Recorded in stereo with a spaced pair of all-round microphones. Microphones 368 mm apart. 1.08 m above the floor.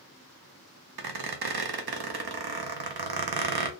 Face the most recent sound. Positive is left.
turn(degrees=-85)